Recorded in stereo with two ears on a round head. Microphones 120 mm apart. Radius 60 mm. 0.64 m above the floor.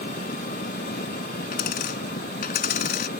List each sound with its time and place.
0.0 s an engine running: 70° left (ahead or behind)
1.5 s a dropped coin: 70° left (ahead or behind)